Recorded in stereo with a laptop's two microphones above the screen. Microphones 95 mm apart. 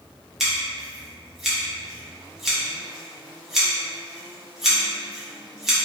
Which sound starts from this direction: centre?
Scissors, at 0.4 s.